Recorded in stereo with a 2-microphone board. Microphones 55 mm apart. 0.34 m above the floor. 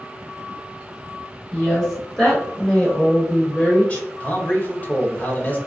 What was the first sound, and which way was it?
A woman speaking, 5° left (ahead or behind).